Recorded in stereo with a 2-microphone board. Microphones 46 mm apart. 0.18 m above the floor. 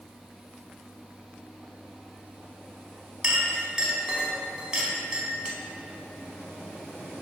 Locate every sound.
3.2 s a clink: 20° right (ahead or behind), 0.7 m